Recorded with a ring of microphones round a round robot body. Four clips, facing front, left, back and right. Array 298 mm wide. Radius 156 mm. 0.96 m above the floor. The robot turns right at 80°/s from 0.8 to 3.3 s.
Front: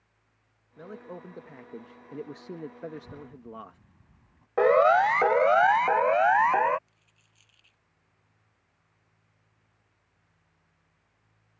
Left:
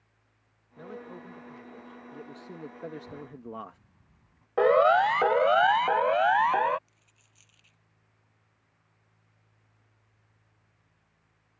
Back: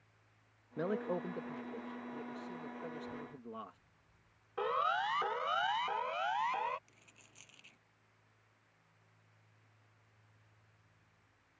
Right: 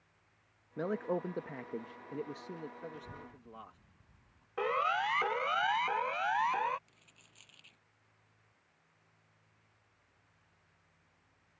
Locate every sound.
0.8 s a man speaking: 135° right; by 3.8 s 65° left
2.9 s a child speaking: 15° right; by 4.5 s 15° left
4.6 s a siren: 40° left; by 6.8 s 30° left
6.9 s a dropped coin: 155° right